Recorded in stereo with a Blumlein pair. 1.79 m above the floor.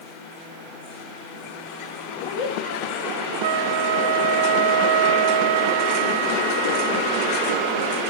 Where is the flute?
55° right, 0.5 m.